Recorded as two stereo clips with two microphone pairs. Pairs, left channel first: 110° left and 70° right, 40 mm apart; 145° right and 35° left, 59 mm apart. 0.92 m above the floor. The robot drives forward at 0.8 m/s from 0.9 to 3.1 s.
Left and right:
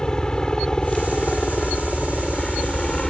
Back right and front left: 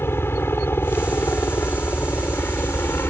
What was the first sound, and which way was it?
A helicopter, straight behind.